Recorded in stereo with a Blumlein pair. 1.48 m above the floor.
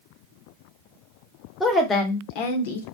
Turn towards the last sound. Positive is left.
turn(degrees=65)